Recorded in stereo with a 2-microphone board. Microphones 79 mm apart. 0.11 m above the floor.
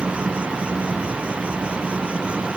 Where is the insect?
15° right (ahead or behind).